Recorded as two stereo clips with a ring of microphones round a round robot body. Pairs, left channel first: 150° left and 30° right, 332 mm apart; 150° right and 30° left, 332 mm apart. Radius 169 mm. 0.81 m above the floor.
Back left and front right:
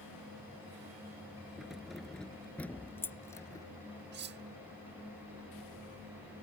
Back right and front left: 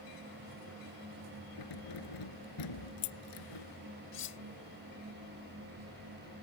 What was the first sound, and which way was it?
Keys jangling, 120° right.